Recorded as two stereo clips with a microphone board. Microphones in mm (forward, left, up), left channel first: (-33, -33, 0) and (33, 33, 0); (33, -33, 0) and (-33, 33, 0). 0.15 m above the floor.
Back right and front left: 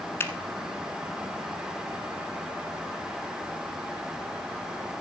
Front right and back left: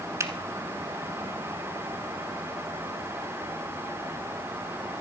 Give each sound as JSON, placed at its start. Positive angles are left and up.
{"t": 0.2, "sound": "a finger snap", "azimuth_deg": 175, "distance_m": 1.0}